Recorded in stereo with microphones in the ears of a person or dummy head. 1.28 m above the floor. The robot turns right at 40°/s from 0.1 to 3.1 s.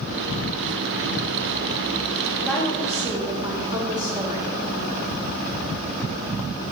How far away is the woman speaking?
About 1.2 m.